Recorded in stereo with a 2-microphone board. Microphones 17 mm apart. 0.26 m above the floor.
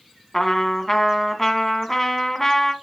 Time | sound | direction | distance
0.3 | a trumpet | 25° left (ahead or behind) | 2 m